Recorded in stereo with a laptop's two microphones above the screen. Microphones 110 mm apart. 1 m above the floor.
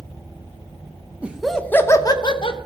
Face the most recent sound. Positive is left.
turn(degrees=55)  # may be behind; listen again after turning